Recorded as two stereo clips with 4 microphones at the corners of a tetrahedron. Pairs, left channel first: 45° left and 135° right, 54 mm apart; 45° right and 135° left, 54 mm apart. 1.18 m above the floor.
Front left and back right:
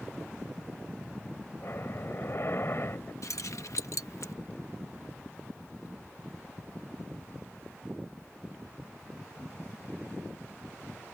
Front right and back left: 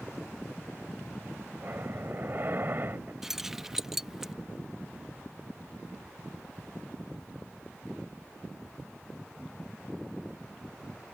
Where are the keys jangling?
50° left.